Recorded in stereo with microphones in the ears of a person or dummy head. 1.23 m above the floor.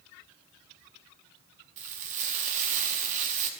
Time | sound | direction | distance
1.8 | frying | 45° right (ahead or behind) | 1.3 m